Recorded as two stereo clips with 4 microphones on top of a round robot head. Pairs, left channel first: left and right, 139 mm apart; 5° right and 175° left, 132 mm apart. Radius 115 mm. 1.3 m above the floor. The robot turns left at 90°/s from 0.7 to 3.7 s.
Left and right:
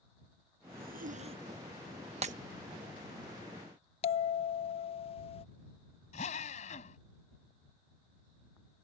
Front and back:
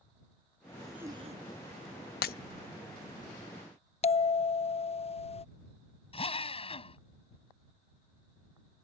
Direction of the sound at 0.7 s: 80° right.